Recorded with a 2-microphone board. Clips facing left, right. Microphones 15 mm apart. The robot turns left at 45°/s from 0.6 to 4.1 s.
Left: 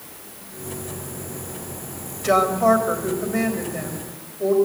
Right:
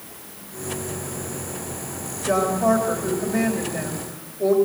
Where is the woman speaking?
75° left, 4.5 m; by 4.5 s 10° right, 4.5 m.